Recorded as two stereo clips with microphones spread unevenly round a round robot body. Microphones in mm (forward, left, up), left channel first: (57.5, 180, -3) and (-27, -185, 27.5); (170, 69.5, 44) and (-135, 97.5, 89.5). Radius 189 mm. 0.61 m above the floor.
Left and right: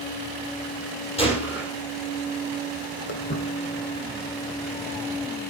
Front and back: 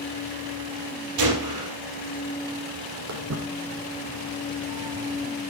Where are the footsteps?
140° left, 2 m; by 5.4 s straight behind, 0.9 m.